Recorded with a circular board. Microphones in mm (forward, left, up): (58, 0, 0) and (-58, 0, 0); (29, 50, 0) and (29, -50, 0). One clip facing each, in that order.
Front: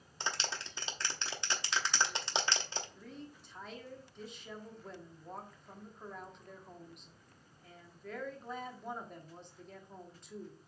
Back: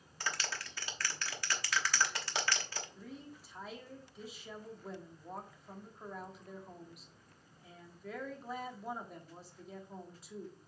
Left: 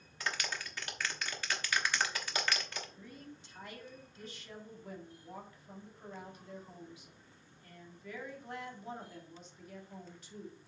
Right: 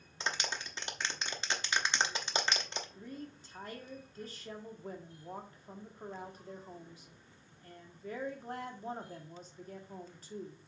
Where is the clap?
45° right, 1.0 m.